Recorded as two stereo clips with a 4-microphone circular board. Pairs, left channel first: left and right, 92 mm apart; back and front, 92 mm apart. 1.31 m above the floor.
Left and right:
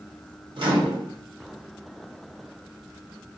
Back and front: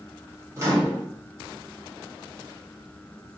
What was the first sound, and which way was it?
A microwave, 60° right.